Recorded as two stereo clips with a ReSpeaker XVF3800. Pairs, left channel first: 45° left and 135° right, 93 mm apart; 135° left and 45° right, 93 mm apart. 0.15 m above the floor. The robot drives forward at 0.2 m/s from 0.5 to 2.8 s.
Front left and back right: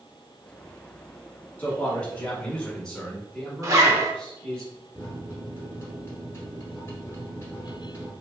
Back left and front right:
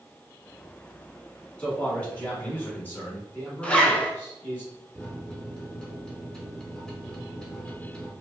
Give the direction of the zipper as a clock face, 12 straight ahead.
5 o'clock.